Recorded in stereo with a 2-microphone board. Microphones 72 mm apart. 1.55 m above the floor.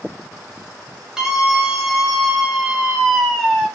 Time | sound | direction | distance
1.2 | a scream | 5° right (ahead or behind) | 8 m